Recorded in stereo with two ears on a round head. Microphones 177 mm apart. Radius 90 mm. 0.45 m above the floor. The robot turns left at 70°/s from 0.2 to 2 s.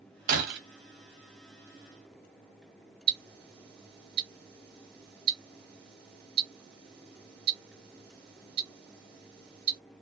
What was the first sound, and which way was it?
Breaking glass, 40° right (ahead or behind).